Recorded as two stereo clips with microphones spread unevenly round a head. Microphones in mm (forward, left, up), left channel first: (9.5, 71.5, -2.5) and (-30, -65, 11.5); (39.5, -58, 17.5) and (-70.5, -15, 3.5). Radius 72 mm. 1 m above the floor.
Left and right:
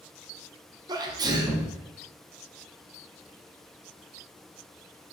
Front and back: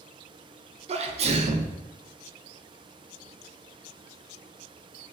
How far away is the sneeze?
About 0.5 m.